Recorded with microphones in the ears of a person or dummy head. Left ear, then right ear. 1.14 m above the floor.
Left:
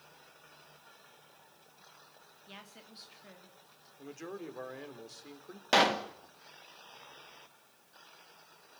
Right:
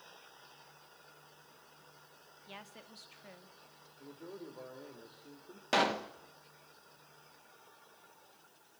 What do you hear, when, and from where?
2.5 s a woman speaking: 20° right (ahead or behind), 2.5 m
4.0 s a man speaking: 70° left (ahead or behind), 3 m
5.7 s a pop: 10° left (ahead or behind), 1.2 m